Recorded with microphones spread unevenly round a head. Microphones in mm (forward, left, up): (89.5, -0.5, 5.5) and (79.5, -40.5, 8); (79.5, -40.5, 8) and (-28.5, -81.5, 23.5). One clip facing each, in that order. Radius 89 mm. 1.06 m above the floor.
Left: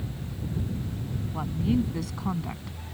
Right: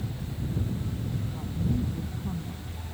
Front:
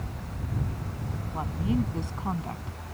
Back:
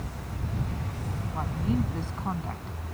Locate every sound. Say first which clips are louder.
1.3 s a woman speaking: left 6 dB, front 1 dB; 100° left